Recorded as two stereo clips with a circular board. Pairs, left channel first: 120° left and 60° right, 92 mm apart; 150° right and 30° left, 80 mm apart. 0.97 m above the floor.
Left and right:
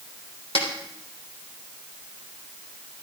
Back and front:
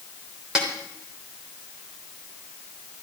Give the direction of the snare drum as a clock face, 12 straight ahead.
8 o'clock.